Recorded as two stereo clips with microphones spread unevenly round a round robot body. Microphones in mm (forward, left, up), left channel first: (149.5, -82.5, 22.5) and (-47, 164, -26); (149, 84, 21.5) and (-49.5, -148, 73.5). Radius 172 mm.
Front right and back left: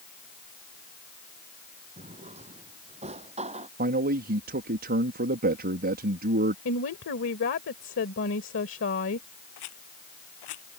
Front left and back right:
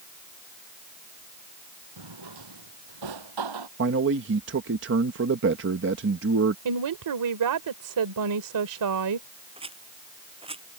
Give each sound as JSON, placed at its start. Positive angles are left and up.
{"t": 2.0, "sound": "a drawer", "azimuth_deg": -160}
{"t": 3.8, "sound": "a man speaking", "azimuth_deg": 175}
{"t": 6.7, "sound": "a woman speaking", "azimuth_deg": -110}
{"t": 9.6, "sound": "a rattle", "azimuth_deg": -60}